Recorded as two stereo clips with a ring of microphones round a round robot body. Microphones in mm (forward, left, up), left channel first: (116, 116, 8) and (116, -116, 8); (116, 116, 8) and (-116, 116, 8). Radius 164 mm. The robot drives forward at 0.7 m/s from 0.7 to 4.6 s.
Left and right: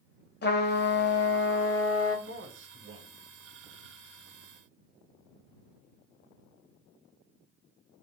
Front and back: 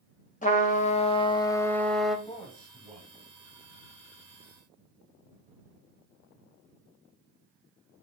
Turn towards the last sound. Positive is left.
turn(degrees=-125)